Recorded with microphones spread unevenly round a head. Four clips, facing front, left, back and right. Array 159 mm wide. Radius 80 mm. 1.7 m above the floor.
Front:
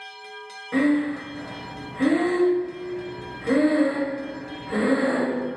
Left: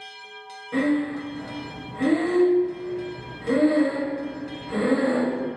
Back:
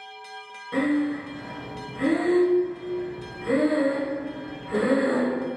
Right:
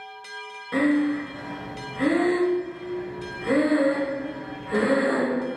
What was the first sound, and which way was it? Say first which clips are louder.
Breathing: right 2 dB, front 2 dB; 50° right.